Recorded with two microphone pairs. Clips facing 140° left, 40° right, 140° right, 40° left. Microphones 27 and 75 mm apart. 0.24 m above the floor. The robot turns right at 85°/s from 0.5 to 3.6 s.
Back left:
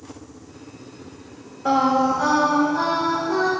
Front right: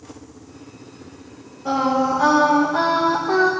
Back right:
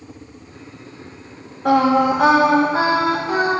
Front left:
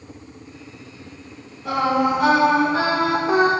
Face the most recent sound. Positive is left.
turn(degrees=-5)